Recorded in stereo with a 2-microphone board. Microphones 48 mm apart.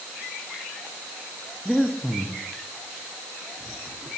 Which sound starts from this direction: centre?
Breathing, at 1.6 s.